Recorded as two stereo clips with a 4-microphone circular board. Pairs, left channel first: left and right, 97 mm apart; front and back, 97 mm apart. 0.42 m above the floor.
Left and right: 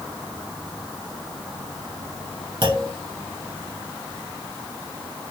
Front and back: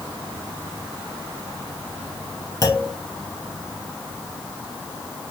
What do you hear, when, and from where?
2.6 s a clunk: 55° right, 1.1 m